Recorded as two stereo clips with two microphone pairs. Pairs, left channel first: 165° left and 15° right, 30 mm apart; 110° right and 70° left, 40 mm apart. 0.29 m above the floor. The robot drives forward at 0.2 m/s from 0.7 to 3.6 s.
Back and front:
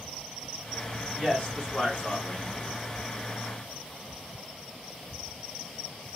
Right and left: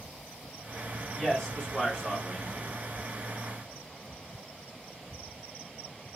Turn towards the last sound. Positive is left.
turn(degrees=180)